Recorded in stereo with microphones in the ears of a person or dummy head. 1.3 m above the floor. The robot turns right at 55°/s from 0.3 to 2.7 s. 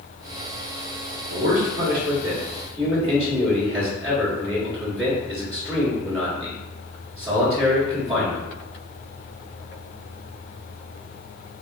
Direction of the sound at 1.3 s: 75° right.